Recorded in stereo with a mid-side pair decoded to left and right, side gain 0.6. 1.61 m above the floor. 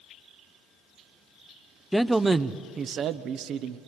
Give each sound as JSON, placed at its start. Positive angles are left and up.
{"t": 1.9, "sound": "a man speaking", "azimuth_deg": 0, "distance_m": 0.6}